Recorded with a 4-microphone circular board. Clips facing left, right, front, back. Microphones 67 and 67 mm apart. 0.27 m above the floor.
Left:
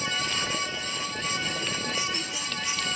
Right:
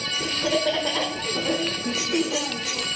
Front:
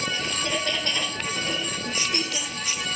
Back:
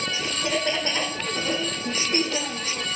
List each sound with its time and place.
0.1 s laughter: 100° right; by 2.9 s 120° right